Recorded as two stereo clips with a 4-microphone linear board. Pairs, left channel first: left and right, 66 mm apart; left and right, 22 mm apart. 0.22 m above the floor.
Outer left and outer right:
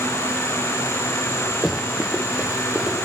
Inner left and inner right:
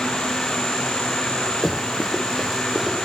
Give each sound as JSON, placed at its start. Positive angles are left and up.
{"t": 1.6, "sound": "running footsteps", "side_deg": -5, "distance_m": 1.8}